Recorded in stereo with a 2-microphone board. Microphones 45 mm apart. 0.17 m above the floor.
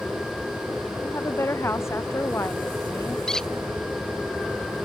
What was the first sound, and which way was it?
A woman speaking, 75° left (ahead or behind).